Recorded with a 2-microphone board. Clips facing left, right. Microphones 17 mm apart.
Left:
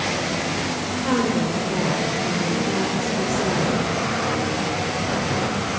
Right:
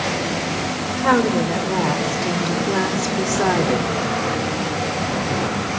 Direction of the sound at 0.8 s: 40° right (ahead or behind).